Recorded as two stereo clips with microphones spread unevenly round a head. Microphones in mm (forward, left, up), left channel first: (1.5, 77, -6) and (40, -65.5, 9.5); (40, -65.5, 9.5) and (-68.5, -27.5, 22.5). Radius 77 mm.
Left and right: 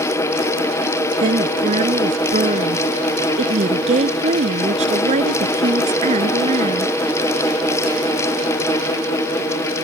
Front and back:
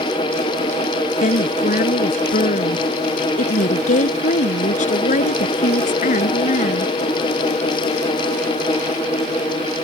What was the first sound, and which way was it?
A woman speaking, 30° right.